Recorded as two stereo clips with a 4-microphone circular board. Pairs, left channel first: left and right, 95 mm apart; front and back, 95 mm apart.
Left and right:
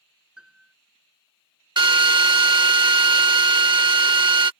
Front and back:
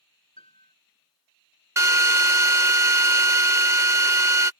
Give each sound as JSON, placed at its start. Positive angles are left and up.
{"t": 0.4, "sound": "a piano", "azimuth_deg": -5}
{"t": 1.8, "sound": "a drill", "azimuth_deg": -125}